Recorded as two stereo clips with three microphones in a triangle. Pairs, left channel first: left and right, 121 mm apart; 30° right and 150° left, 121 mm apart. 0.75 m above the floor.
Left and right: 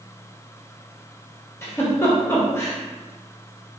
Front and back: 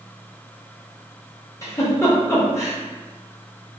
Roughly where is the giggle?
Ahead left.